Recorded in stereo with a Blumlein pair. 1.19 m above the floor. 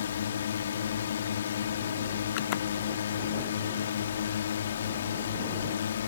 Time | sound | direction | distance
0.0 | a drone | 65° left | ?